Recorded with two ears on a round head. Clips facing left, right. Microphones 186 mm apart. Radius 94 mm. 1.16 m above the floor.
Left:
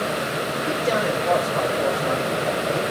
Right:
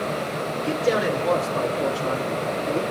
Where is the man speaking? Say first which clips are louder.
Right 2 dB; 55° right (ahead or behind), 5.5 m; by 2.8 s 75° right (ahead or behind), 3 m.